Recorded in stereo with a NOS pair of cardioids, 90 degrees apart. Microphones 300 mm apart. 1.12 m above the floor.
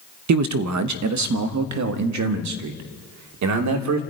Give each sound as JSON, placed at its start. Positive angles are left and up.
{"t": 0.3, "sound": "a man speaking", "azimuth_deg": -70, "distance_m": 0.9}